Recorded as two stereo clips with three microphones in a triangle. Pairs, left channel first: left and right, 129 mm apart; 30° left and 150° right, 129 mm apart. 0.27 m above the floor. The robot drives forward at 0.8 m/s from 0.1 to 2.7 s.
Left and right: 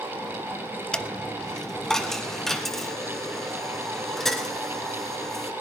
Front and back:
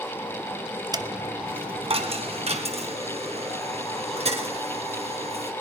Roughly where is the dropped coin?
Behind.